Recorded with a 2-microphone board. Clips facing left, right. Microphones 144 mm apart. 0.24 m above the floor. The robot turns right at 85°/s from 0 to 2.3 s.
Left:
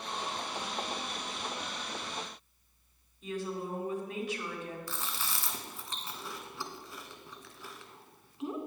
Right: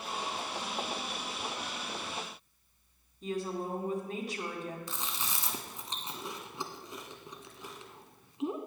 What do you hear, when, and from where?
3.2 s a woman speaking: 40° right (ahead or behind), 2.0 m
4.9 s chewing: 20° right (ahead or behind), 0.9 m